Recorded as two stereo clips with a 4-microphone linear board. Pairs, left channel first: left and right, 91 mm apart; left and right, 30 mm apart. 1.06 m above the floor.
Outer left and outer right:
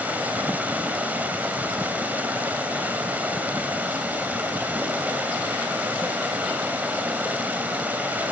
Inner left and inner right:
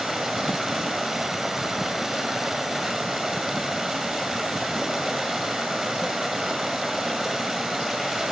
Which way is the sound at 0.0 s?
20° right (ahead or behind).